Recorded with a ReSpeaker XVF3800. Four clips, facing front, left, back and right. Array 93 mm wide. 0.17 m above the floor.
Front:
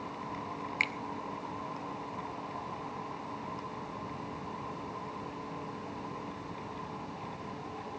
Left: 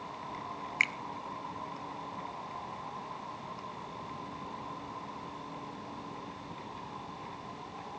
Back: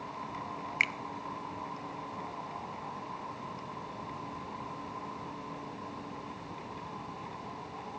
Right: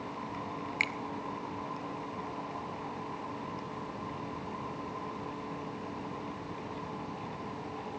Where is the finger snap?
130° left, 1.3 m.